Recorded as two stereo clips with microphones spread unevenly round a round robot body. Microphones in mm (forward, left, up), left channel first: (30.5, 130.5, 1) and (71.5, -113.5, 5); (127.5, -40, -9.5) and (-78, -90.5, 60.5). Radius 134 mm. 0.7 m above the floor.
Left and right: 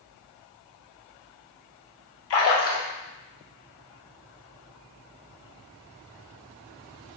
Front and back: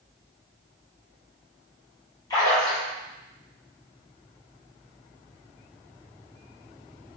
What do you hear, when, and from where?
2.3 s a splash: 75° left, 0.7 m